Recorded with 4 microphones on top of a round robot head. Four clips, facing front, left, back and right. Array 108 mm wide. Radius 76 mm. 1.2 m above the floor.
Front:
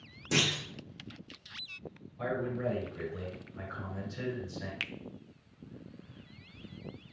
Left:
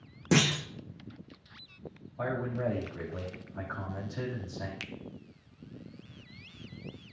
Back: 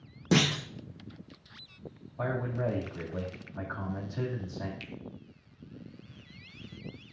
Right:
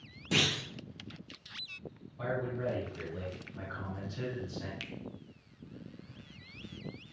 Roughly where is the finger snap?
Ahead.